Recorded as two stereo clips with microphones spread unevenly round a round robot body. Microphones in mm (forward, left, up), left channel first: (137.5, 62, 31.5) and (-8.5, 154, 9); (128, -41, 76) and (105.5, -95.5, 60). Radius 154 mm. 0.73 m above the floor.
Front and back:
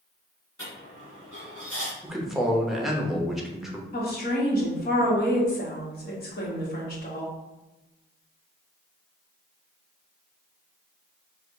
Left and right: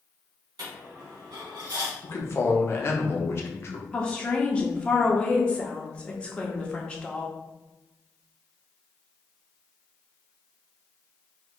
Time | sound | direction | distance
0.6 | a dropped coin | 110° right | 1.9 m
2.0 | a man speaking | 75° left | 0.9 m
3.9 | a woman speaking | 15° right | 1.5 m